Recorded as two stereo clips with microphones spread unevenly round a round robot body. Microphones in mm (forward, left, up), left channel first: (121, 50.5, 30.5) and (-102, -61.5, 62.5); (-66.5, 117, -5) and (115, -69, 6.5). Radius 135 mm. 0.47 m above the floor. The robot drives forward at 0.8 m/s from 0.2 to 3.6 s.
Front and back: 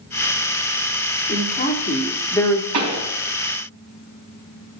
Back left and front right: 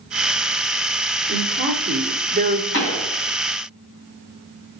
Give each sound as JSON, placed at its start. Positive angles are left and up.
{"t": 1.3, "sound": "a woman speaking", "azimuth_deg": -5, "distance_m": 1.8}
{"t": 2.7, "sound": "a pop", "azimuth_deg": 180, "distance_m": 3.5}